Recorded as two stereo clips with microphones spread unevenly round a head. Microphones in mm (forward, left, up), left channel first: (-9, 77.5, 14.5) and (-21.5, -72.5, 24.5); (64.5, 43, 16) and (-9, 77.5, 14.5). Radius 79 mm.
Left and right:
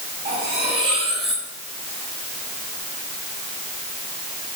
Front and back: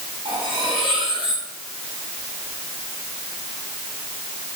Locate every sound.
0.2 s cutlery clinking: 145° right, 6 m